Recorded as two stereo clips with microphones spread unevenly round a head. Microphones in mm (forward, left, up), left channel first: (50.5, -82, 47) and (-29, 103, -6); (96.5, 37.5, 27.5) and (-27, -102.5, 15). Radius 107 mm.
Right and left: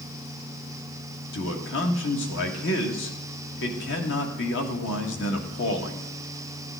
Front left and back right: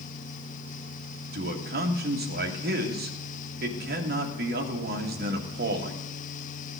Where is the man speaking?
100° right, 2 m.